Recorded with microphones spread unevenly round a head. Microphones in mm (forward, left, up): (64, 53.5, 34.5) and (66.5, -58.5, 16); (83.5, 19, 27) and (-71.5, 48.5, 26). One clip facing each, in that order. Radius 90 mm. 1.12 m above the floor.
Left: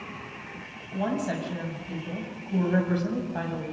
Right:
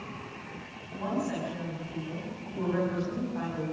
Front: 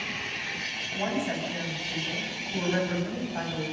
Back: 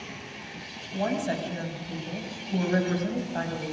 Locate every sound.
0.9 s a woman speaking: 125° left, 6.5 m